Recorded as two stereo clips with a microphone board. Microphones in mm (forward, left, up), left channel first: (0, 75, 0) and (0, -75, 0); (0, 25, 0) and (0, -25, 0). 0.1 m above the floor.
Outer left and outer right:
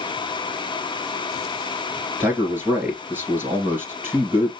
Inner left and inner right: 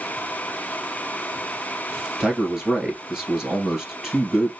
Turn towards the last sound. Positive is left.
turn(degrees=-15)  # may be behind; listen again after turning